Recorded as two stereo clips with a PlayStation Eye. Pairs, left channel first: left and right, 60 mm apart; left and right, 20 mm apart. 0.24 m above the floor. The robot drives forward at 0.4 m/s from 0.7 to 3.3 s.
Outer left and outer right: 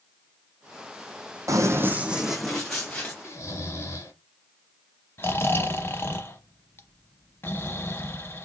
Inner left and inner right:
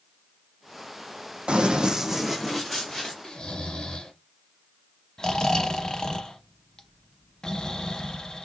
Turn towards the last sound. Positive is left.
turn(degrees=40)  # may be behind; listen again after turning